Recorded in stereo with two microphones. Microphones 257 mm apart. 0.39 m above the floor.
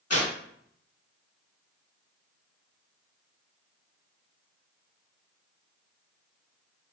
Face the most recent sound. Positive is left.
turn(degrees=65)  # may be behind; listen again after turning